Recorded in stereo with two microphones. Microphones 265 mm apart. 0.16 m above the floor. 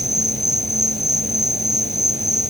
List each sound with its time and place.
0.0 s an insect: 25° right (ahead or behind)